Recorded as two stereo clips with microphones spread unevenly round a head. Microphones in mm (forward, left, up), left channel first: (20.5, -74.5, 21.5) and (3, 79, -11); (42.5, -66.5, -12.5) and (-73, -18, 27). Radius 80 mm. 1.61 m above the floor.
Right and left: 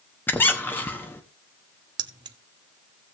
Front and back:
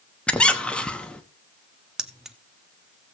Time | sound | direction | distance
0.3 | a squeak | 125° right | 1.1 m
2.0 | keys jangling | 145° left | 0.6 m